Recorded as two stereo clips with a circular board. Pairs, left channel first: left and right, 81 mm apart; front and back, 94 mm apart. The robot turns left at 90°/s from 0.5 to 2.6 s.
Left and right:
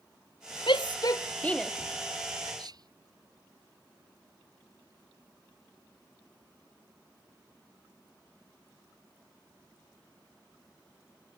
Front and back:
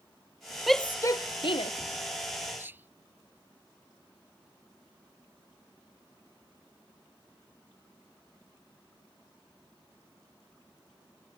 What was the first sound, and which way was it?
A shout, 90° left.